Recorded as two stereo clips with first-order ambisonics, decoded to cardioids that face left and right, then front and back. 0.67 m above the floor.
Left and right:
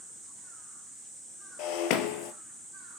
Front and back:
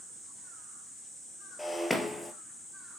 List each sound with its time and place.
1.6 s breaking glass: 85° left, 1.5 m